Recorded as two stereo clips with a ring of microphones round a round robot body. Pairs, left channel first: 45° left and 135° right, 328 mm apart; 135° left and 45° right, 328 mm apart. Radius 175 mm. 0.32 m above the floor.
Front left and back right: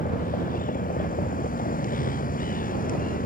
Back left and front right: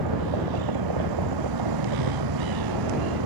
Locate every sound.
0.0 s a vehicle: 20° right